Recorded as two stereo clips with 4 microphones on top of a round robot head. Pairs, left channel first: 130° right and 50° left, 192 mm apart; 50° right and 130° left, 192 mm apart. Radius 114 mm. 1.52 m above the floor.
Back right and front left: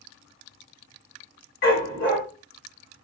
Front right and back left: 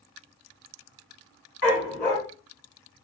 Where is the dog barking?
125° right, 1.4 m.